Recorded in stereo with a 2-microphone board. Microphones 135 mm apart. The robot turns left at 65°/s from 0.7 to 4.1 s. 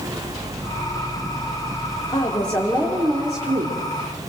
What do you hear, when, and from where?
2.1 s a woman speaking: 30° left, 3 m; by 3.8 s 75° right, 3 m